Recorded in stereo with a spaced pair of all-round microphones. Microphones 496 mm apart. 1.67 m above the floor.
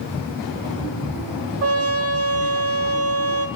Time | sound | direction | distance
1.6 | a trumpet | 30° right (ahead or behind) | 0.5 m